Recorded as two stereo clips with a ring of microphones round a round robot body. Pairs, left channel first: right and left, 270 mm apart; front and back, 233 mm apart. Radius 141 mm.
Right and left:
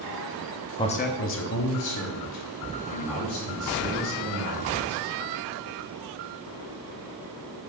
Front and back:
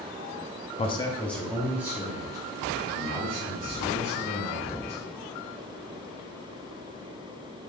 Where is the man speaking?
30° right, 0.6 m; by 5.0 s 110° right, 3 m.